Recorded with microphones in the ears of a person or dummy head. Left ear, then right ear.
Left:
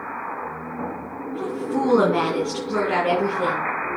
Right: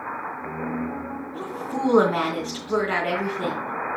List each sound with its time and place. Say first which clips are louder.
1.3 s a woman speaking: left 5 dB; 25° right (ahead or behind), 4 m